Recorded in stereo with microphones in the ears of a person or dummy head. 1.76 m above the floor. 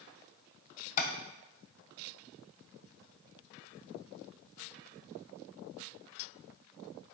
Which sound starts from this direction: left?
Tapping, at 1.0 s.